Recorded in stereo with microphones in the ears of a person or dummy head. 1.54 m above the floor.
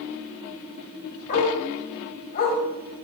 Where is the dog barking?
45° left (ahead or behind), 3.5 m.